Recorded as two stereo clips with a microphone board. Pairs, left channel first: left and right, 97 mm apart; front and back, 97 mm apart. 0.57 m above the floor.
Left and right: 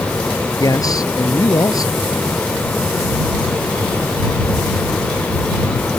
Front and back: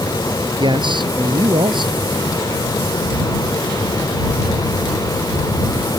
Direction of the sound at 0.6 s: 145° left.